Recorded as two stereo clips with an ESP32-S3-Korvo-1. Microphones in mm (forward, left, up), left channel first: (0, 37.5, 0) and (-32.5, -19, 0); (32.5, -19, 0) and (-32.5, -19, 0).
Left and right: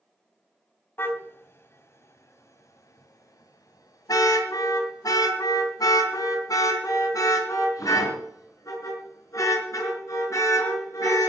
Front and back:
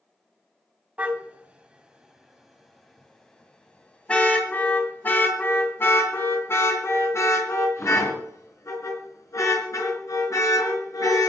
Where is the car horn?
115° left, 2.5 m; by 11.3 s 25° left, 6 m.